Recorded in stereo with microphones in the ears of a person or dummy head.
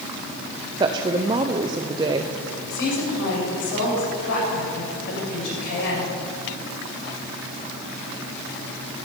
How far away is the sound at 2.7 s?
About 7 m.